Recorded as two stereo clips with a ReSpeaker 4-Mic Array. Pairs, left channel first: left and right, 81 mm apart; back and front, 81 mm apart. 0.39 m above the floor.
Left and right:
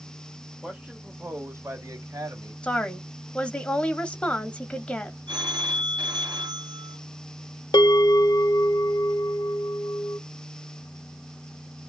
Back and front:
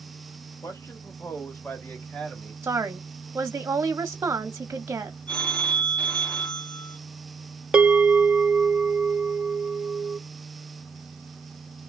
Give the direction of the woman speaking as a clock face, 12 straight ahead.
11 o'clock.